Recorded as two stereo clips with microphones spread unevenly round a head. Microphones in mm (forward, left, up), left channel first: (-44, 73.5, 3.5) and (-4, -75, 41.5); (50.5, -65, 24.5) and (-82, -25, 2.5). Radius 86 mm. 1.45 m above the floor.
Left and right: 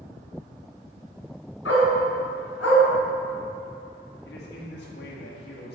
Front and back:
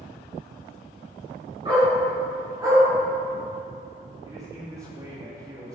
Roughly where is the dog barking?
Left.